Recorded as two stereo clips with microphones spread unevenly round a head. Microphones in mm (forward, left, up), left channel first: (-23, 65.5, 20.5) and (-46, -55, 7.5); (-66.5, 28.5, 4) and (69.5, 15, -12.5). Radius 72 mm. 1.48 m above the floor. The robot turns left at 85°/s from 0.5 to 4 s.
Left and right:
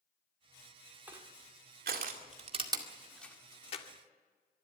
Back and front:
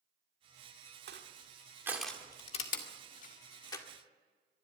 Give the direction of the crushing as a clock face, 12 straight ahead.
1 o'clock.